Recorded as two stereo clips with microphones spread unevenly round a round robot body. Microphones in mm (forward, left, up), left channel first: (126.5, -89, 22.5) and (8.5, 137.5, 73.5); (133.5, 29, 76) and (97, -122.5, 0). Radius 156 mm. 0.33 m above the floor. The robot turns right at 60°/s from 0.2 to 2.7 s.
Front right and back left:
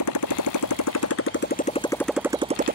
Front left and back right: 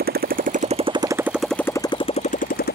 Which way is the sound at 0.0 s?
90° right.